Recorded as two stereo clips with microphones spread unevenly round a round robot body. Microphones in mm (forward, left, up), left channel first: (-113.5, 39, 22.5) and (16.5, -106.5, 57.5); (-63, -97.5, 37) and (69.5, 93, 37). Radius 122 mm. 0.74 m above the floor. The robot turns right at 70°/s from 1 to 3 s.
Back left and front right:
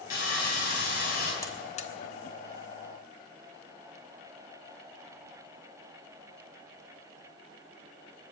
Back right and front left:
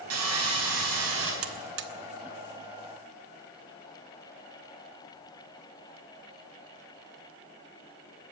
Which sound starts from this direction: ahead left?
A buzzer, at 1.4 s.